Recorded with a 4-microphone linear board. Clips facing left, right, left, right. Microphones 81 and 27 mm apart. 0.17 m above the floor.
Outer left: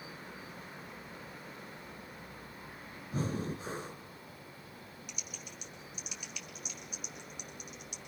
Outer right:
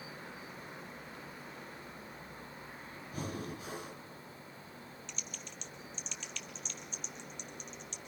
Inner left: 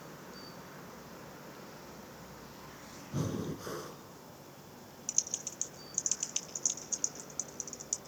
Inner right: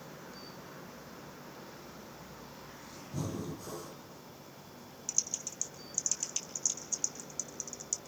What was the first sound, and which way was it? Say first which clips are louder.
Breathing: outer left 5 dB, inner left 2 dB; 35° left (ahead or behind).